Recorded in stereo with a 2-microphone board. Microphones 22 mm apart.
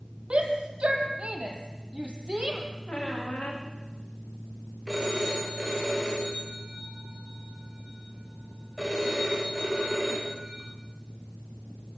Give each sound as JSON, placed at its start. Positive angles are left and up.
{"t": 0.3, "sound": "a shout", "side_deg": -60, "distance_m": 4.0}
{"t": 2.9, "sound": "a squeak", "side_deg": 85, "distance_m": 7.5}
{"t": 4.9, "sound": "a phone ringing", "side_deg": -15, "distance_m": 7.5}